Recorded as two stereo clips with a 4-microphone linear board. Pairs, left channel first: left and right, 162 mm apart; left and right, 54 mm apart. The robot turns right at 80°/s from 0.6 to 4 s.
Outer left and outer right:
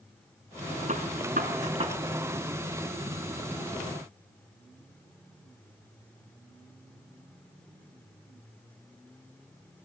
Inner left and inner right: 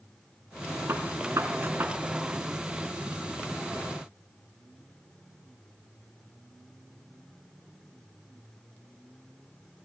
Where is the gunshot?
50° right (ahead or behind), 1.4 m; by 2.0 s 35° right (ahead or behind), 1.4 m.